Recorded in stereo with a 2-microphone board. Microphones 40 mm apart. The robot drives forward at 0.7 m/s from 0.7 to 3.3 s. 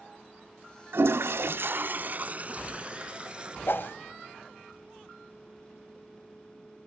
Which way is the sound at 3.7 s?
65° left (ahead or behind).